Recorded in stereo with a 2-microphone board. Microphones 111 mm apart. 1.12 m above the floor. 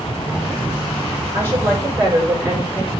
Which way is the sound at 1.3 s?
25° right (ahead or behind).